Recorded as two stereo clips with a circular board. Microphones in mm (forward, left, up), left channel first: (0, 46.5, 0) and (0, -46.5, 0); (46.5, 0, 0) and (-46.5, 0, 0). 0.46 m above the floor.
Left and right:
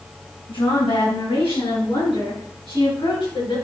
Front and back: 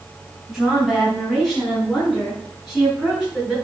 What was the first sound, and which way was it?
A woman speaking, 95° left.